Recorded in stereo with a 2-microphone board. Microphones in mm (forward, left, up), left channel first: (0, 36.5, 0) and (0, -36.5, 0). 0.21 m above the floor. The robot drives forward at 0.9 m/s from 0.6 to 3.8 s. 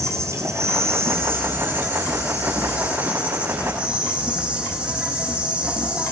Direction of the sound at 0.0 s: 40° right (ahead or behind).